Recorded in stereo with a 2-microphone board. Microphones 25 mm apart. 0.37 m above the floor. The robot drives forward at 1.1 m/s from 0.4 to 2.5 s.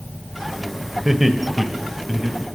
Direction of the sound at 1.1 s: 15° right (ahead or behind).